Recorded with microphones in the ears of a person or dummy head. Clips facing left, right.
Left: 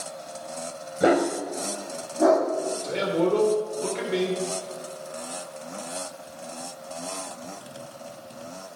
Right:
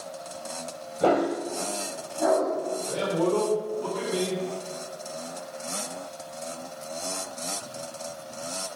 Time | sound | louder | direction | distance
1.0 | a dog barking | left 2 dB | 25° left (ahead or behind) | 1.5 m
2.8 | a man speaking | left 2 dB | 30° left (ahead or behind) | 3.5 m